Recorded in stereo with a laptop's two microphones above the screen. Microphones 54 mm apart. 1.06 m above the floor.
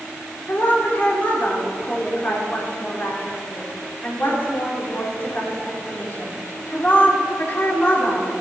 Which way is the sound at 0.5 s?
40° left (ahead or behind).